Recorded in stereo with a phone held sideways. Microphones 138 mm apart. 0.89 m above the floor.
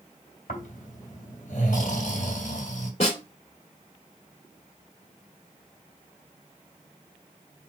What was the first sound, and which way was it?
Snoring, 70° left (ahead or behind).